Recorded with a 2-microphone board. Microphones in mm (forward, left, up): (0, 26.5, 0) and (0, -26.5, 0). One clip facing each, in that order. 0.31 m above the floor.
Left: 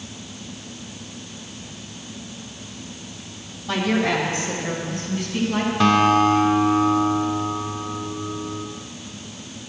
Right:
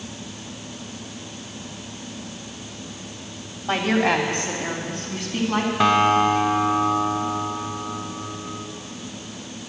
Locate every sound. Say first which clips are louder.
3.7 s a woman speaking: right 1 dB; 45° right (ahead or behind), 1.9 m; by 5.7 s 65° right (ahead or behind), 3 m
5.8 s a guitar: left 1 dB; 15° right (ahead or behind), 0.8 m